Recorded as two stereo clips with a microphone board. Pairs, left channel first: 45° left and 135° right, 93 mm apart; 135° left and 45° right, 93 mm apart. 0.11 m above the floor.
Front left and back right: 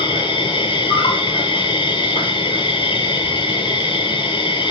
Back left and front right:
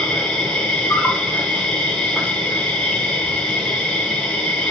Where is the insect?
55° left, 0.8 m.